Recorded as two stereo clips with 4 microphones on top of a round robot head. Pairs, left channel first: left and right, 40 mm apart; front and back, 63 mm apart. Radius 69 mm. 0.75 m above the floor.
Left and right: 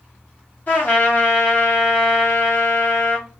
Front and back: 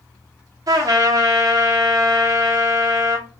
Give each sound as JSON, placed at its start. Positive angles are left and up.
{"t": 0.7, "sound": "a trumpet", "azimuth_deg": 155, "distance_m": 0.5}